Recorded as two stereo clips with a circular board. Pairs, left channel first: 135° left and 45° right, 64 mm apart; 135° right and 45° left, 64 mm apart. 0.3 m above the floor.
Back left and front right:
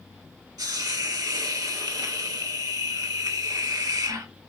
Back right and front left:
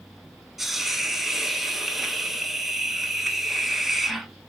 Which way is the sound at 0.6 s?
45° right.